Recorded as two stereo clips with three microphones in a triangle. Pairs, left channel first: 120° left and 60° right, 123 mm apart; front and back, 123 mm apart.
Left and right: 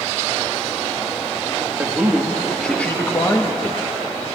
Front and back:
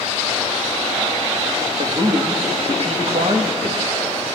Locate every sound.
1.8 s a man speaking: 135° right, 1.7 m; by 4.1 s 155° left, 1.6 m